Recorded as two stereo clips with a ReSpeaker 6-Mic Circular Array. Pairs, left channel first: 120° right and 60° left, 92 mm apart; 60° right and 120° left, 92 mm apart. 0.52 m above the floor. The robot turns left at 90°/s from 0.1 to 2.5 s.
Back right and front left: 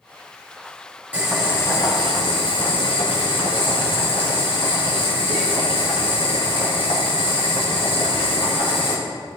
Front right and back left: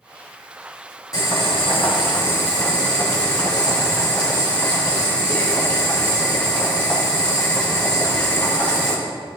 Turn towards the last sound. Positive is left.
turn(degrees=-135)